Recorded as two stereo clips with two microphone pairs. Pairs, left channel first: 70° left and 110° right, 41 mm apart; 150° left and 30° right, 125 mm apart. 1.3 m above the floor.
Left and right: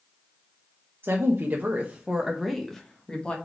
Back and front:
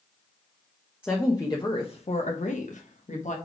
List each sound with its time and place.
1.0 s a woman speaking: 135° right, 1.1 m; by 3.4 s 135° left, 1.4 m